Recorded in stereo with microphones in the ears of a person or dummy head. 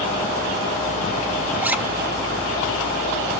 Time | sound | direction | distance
1.6 | a zipper | 5° right (ahead or behind) | 0.6 m